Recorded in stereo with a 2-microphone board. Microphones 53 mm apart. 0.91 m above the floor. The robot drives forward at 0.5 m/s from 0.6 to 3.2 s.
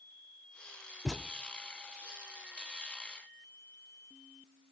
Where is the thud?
5° right (ahead or behind), 0.8 m.